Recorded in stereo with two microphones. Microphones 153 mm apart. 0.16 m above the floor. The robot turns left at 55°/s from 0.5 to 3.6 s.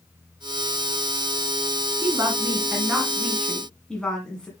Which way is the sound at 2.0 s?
20° right (ahead or behind).